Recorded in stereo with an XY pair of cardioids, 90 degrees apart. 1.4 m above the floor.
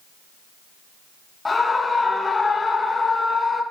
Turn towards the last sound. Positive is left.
turn(degrees=30)